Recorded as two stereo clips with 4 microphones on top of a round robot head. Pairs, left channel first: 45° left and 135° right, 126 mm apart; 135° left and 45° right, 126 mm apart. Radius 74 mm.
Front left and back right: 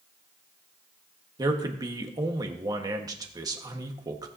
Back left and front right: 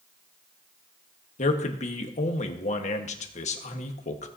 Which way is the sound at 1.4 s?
165° left.